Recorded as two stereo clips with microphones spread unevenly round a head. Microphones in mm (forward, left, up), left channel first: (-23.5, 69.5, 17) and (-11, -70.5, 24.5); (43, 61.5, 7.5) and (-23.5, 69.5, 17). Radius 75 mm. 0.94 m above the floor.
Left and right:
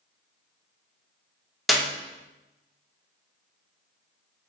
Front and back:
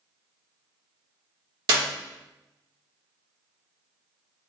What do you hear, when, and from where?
1.7 s a clap: 175° right, 0.7 m